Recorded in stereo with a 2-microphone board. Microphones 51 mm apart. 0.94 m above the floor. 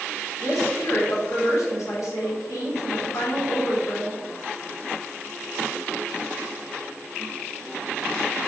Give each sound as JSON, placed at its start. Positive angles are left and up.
{"t": 0.4, "sound": "a woman speaking", "side_deg": 75, "distance_m": 1.6}